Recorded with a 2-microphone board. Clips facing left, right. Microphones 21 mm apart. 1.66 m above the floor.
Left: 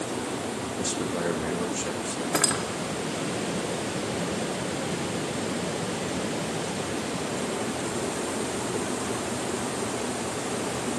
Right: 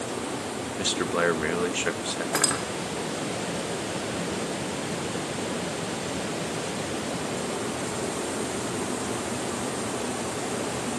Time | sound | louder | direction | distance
0.8 | a man speaking | right 5 dB | 45° right (ahead or behind) | 1.7 m
2.3 | cutlery clinking | left 1 dB | centre (ahead or behind) | 2.5 m